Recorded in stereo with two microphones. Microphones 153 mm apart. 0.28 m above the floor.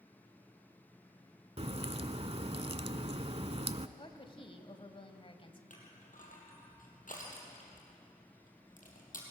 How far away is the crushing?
About 4 m.